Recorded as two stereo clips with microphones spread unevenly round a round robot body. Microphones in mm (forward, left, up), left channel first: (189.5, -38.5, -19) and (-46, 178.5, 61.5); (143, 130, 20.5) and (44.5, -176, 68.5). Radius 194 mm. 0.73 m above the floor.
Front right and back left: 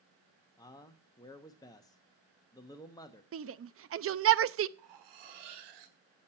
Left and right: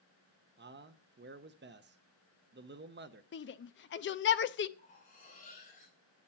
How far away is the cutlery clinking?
About 1.6 m.